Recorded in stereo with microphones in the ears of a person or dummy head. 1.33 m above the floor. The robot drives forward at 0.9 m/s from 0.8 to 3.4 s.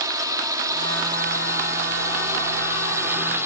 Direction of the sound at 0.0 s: 10° right (ahead or behind).